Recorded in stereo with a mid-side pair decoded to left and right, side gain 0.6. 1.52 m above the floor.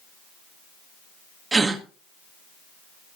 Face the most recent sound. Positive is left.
turn(degrees=-20)